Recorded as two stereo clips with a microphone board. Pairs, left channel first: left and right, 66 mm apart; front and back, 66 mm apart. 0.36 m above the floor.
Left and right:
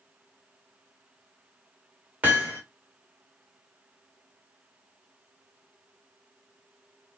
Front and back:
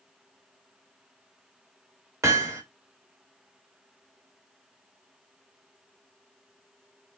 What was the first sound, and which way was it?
Hammering, 150° right.